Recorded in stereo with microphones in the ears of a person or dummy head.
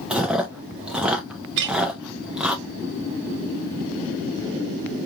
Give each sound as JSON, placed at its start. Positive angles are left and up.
{"t": 0.1, "sound": "chewing", "side_deg": -5, "distance_m": 0.6}
{"t": 1.6, "sound": "a clink", "side_deg": -60, "distance_m": 0.5}